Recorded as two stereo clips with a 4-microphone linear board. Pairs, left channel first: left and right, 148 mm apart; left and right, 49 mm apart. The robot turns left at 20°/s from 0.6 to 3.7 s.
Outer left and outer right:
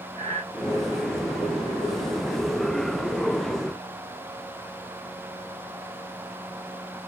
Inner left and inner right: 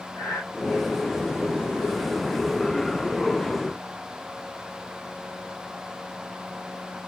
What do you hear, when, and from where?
0.1 s breathing: 75° left (ahead or behind), 2 m